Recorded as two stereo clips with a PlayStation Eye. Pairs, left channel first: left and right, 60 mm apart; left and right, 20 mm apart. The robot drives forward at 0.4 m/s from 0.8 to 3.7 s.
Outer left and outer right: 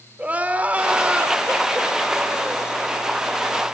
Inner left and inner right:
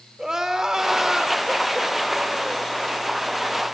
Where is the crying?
25° right (ahead or behind), 1.4 m; by 2.7 s 15° right (ahead or behind), 2 m.